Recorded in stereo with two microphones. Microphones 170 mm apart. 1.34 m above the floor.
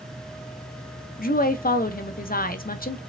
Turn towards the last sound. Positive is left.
turn(degrees=60)  # may be behind; listen again after turning